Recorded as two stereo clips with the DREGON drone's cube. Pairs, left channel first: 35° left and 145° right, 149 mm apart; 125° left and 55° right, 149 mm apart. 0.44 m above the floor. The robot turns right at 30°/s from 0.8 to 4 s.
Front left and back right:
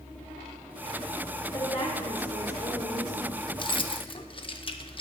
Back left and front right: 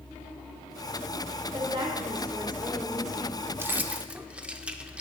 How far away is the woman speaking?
About 1.1 m.